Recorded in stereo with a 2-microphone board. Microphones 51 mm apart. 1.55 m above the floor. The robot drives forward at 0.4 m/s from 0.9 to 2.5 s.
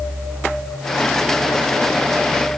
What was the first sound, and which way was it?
Only background noise.